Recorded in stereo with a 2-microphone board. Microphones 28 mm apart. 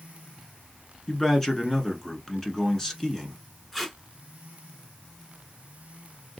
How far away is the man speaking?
About 1.1 m.